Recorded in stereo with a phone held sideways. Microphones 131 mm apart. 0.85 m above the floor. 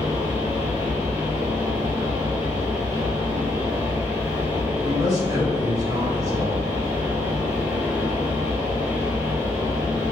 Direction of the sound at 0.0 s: 55° right (ahead or behind).